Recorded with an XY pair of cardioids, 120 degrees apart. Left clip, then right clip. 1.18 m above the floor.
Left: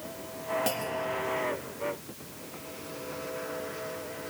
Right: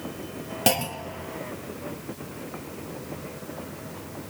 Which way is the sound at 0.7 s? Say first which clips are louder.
Right 5 dB; 65° right.